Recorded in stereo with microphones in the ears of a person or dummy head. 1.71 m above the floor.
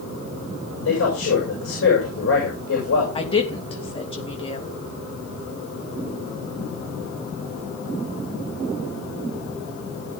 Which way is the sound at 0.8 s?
75° left (ahead or behind).